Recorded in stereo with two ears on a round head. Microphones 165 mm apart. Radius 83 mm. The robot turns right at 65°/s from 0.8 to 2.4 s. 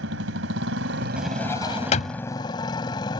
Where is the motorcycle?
80° right; by 3.2 s 25° left.